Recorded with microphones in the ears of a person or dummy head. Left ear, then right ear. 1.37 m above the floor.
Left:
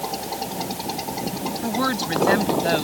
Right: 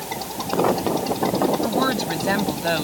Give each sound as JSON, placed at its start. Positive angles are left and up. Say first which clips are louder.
{"t": 1.6, "sound": "a woman speaking", "louder": "right 2 dB", "side_deg": -5}